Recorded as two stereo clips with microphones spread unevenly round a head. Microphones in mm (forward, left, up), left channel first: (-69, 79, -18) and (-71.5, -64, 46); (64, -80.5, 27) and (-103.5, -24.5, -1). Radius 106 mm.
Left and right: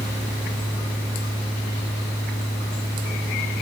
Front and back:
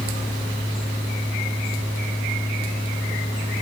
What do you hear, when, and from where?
0.0 s a fan: 50° left, 1.9 m